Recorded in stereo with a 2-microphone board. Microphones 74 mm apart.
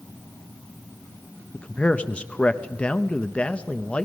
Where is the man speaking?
15° left (ahead or behind), 0.8 m.